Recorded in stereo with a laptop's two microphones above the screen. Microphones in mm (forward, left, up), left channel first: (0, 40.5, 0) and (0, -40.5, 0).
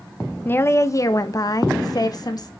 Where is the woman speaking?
25° left (ahead or behind), 0.6 m; by 2.5 s 55° left (ahead or behind), 1.5 m.